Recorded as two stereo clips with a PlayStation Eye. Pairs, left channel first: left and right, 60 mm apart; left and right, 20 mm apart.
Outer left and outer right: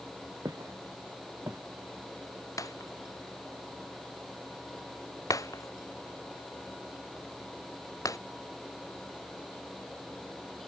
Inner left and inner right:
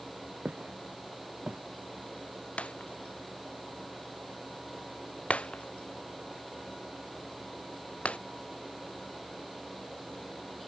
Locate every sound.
0.5 s footsteps: 70° right (ahead or behind); by 1.6 s 60° right (ahead or behind)
2.6 s breaking glass: 70° left (ahead or behind)